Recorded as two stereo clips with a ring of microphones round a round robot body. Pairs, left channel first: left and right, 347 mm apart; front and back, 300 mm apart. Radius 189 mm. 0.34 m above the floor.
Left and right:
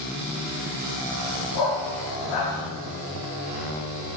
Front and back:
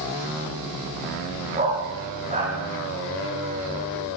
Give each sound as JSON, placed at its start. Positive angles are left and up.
{"t": 1.6, "sound": "a dog barking", "azimuth_deg": 115, "distance_m": 8.5}